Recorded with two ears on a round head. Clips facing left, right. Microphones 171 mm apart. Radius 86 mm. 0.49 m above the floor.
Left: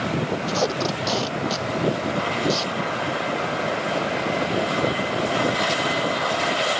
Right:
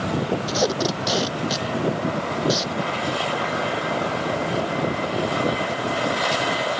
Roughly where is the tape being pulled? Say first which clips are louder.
Right 1 dB; centre.